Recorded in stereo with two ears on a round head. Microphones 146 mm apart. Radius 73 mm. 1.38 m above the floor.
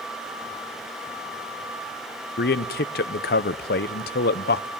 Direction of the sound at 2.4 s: 65° left (ahead or behind).